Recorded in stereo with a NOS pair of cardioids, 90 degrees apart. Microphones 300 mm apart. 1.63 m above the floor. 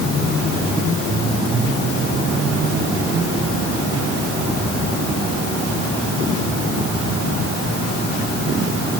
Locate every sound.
Only background noise.